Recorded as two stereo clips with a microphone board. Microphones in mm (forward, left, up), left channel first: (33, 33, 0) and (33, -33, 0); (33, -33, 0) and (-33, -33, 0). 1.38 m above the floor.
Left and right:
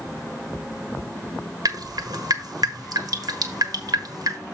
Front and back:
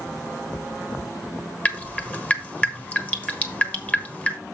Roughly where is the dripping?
Right.